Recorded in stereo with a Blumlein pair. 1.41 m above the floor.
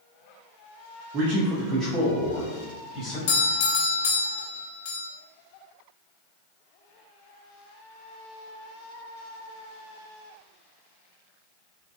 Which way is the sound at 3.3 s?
55° left.